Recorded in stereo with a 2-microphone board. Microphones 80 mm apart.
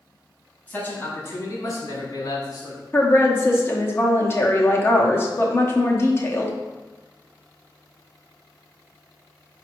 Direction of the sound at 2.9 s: 30° left (ahead or behind).